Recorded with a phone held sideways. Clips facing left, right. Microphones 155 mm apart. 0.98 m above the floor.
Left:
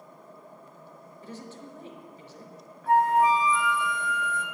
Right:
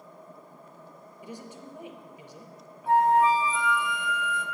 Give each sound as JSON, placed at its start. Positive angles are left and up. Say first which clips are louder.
{"t": 1.2, "sound": "a woman speaking", "louder": "even", "side_deg": -15, "distance_m": 0.8}
{"t": 2.9, "sound": "a flute", "louder": "even", "side_deg": -25, "distance_m": 1.4}